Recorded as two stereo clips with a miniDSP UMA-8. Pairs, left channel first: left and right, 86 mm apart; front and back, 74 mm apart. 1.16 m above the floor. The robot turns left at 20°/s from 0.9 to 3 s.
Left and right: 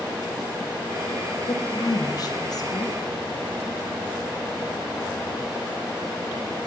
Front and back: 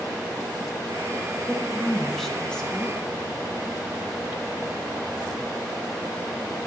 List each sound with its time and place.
1.5 s a woman speaking: 100° left, 0.6 m; by 3.0 s 70° left, 0.6 m